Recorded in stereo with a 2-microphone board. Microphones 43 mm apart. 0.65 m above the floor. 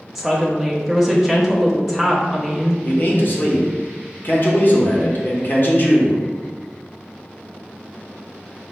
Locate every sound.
0.1 s a woman speaking: 5° right (ahead or behind), 0.7 m
2.8 s a man speaking: 50° left (ahead or behind), 0.8 m